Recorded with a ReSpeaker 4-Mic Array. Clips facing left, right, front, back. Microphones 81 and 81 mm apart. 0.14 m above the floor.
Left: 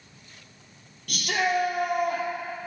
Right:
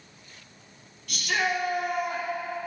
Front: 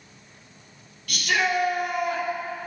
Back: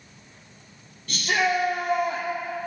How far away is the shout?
About 3 m.